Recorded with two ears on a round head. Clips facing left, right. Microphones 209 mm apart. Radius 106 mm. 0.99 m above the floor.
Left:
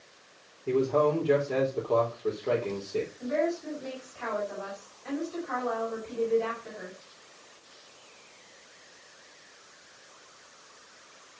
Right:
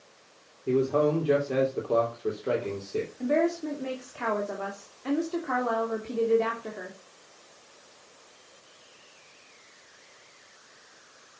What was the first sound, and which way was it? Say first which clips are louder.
A man speaking: right 1 dB; 15° right (ahead or behind).